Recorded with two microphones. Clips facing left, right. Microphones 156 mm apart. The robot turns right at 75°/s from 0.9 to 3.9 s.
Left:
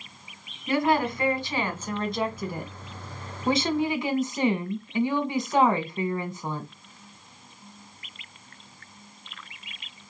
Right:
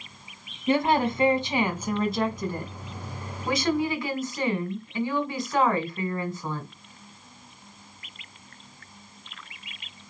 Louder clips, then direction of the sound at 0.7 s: Right 1 dB; 25° right (ahead or behind).